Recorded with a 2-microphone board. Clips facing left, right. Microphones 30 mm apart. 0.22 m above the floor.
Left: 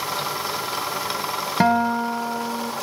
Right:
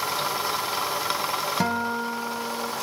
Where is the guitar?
25° left (ahead or behind), 0.9 m.